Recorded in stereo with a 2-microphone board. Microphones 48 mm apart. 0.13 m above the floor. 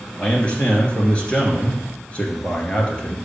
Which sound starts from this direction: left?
A man speaking, at 0.2 s.